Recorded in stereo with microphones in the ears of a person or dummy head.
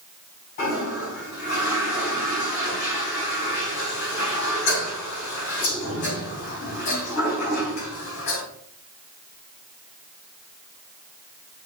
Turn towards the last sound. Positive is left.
turn(degrees=55)  # may be behind; listen again after turning